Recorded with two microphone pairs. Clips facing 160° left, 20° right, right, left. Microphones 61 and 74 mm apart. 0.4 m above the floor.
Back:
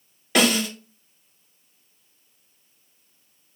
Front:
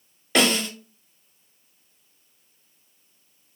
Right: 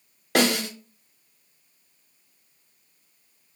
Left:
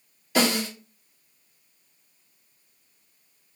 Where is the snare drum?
115° right, 1.3 m.